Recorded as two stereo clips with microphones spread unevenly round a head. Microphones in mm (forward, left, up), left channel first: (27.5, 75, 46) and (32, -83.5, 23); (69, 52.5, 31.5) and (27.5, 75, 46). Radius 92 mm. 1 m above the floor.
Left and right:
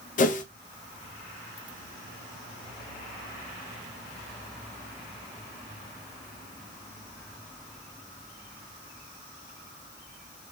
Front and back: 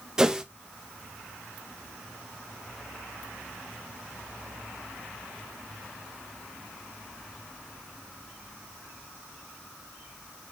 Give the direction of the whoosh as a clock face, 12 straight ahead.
10 o'clock.